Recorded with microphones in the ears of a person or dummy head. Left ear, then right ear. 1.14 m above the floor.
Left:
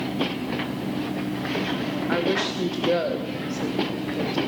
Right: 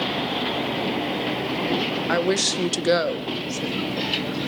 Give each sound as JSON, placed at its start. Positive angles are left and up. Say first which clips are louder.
{"t": 2.1, "sound": "a woman speaking", "louder": "right 2 dB", "side_deg": -75, "distance_m": 0.8}